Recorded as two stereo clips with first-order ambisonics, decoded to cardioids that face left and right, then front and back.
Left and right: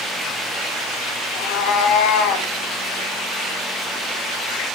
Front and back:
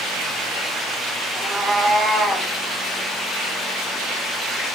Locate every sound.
1.4 s a cat meowing: 105° left, 1.3 m; by 2.5 s 80° left, 1.6 m